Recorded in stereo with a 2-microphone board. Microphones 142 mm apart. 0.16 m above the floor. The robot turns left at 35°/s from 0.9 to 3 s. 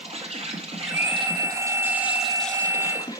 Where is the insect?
130° right, 1.7 m; by 3.2 s 155° left, 1.7 m.